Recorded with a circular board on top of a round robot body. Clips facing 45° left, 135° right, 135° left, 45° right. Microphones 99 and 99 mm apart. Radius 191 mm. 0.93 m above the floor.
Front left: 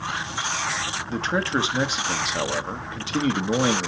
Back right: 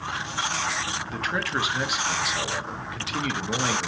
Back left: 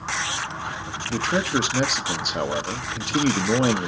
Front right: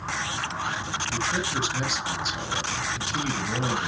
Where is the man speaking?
105° left, 1.2 m.